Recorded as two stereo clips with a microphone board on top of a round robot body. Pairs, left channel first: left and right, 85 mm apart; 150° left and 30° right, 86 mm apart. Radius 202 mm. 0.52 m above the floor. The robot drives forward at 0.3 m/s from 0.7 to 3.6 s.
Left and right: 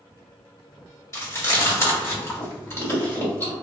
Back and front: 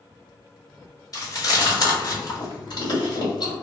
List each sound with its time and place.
1.1 s chewing: 130° left, 1.7 m; by 3.5 s 150° left, 2 m